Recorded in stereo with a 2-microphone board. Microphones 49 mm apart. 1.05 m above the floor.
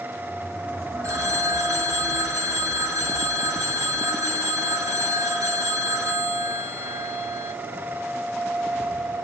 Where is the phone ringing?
70° right (ahead or behind), 1.9 m.